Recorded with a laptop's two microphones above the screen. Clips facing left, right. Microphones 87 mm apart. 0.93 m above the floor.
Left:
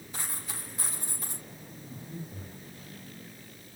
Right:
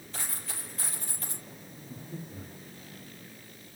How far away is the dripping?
No dripping in this recording.